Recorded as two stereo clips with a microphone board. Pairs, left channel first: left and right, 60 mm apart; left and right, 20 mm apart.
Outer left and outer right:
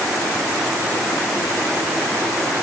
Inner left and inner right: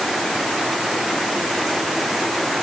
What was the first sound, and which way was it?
Only background noise.